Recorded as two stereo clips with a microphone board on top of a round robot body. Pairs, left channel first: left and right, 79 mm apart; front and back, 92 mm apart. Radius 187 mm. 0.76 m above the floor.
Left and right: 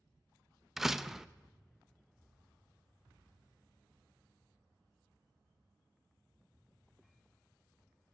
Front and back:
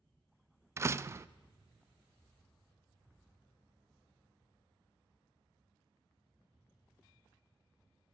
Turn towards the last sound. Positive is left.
turn(degrees=-170)